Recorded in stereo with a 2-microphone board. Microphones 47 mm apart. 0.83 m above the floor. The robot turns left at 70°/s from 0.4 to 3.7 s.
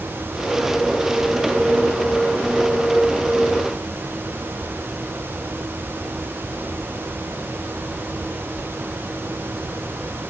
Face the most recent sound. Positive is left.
No sound to turn to.